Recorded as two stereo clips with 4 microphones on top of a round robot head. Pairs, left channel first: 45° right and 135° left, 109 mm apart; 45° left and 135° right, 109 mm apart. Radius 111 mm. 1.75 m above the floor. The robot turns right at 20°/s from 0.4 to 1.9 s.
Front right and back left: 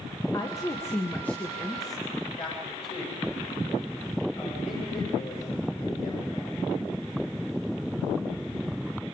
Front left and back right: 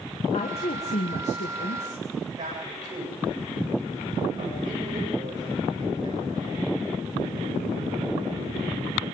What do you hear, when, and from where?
0.3 s a woman speaking: 10° left, 1.5 m; by 2.0 s 40° left, 1.5 m
2.4 s a man speaking: 80° right, 8.5 m